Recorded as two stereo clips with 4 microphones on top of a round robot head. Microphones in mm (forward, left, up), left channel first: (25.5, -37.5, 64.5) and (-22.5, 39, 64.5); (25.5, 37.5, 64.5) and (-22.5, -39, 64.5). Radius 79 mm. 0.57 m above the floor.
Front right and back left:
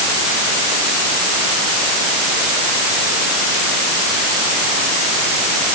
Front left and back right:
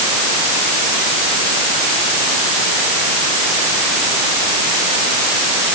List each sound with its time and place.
Only background noise.